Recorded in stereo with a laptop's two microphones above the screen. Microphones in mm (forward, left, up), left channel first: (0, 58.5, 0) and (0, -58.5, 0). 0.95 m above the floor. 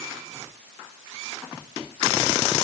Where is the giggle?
No giggle in this recording.